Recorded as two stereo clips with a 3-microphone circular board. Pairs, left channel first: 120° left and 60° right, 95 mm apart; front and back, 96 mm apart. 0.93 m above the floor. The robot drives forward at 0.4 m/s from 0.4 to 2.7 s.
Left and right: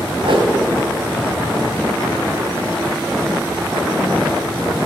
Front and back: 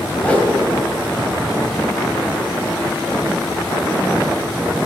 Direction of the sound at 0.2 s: 75° right.